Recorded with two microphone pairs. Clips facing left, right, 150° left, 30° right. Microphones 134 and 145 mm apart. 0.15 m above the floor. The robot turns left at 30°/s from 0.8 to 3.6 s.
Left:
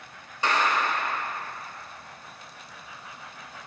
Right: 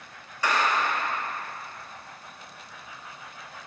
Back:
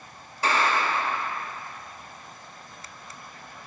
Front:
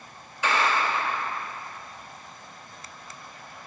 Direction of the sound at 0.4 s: 140° left.